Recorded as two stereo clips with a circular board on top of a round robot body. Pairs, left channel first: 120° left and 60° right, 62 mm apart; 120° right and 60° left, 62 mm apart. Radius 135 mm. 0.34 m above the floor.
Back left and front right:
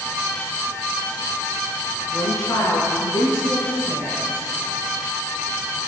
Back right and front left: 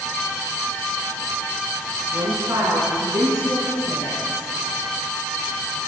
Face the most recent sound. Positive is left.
turn(degrees=85)